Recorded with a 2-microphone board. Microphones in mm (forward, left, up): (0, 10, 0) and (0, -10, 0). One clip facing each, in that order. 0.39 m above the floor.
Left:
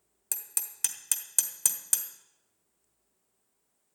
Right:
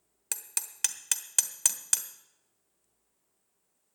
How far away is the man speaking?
No man speaking in this recording.